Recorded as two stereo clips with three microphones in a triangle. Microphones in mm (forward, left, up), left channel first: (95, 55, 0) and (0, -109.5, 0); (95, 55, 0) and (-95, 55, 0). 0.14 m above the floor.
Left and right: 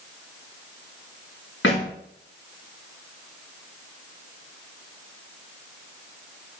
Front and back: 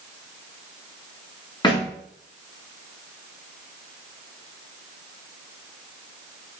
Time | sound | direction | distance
1.6 | a thud | 70° left | 6.5 m